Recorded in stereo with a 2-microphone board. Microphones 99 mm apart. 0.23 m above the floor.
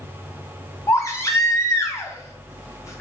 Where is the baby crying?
30° left (ahead or behind), 0.9 m.